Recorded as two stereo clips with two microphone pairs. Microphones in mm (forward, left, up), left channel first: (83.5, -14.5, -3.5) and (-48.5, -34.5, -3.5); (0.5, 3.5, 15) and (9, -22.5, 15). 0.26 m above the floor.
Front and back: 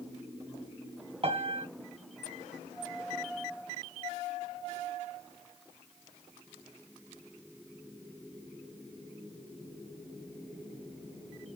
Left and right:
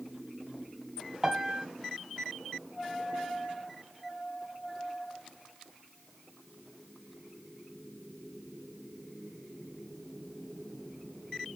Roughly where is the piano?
Behind right.